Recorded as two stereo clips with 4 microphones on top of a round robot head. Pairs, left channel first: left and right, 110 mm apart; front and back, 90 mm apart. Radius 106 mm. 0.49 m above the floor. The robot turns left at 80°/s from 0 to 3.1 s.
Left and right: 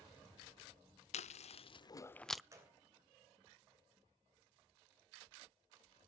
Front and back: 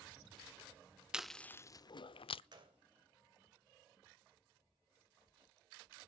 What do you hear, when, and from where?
1.1 s chewing: 100° left, 0.5 m; by 2.4 s 5° right, 0.5 m
2.5 s a gunshot: 150° right, 3 m; by 2.8 s 170° right, 3 m